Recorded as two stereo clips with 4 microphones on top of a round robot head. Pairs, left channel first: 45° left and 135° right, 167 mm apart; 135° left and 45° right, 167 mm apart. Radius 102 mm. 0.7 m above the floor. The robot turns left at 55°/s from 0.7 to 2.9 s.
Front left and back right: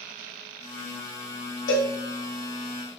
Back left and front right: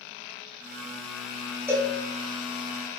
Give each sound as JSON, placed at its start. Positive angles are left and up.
{"t": 1.7, "sound": "a cowbell", "azimuth_deg": 35, "distance_m": 1.2}